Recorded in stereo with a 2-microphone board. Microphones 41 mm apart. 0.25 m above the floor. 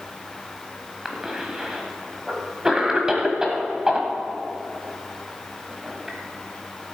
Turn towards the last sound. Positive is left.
turn(degrees=-15)  # may be behind; listen again after turning